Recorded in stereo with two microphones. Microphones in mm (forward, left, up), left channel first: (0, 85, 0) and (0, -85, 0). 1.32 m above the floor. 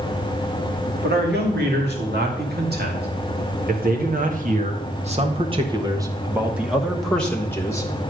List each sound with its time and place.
1.0 s a man speaking: 80° right, 3 m; by 7.9 s 20° left (ahead or behind), 1.6 m